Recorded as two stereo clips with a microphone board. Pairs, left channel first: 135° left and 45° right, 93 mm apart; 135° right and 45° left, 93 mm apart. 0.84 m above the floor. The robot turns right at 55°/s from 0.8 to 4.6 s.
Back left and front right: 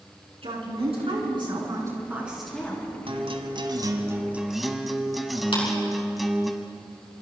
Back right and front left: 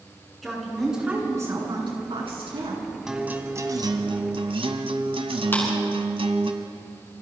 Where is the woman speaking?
45° right, 8 m; by 2.9 s 70° left, 8 m.